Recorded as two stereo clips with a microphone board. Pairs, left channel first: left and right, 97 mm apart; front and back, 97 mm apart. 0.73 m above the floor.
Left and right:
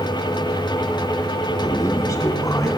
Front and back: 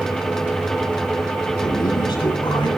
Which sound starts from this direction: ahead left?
A man speaking, at 1.6 s.